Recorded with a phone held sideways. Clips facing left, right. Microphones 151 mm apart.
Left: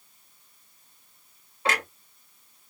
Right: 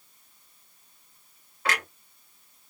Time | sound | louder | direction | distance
1.6 | a clunk | left 2 dB | 25° left (ahead or behind) | 2 m